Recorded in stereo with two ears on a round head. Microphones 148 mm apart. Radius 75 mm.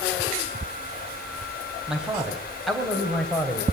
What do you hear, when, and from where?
1.9 s a man speaking: 5° right (ahead or behind), 4 m; by 3.6 s 10° left (ahead or behind), 3.5 m